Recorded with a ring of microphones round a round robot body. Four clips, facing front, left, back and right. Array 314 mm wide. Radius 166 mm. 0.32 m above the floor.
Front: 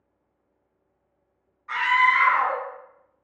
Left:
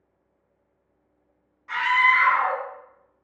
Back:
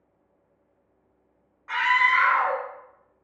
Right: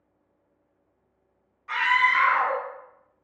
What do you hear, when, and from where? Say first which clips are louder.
1.7 s a scream: left 2 dB, front 2 dB; 160° right, 1.1 m